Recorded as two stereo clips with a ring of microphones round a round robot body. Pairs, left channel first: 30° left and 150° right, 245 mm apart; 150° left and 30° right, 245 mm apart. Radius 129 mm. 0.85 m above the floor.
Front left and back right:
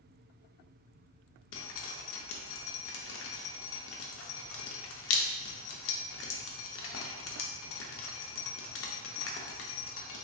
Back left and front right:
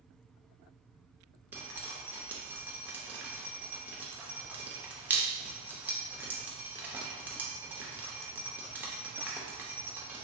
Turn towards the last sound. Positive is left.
turn(degrees=50)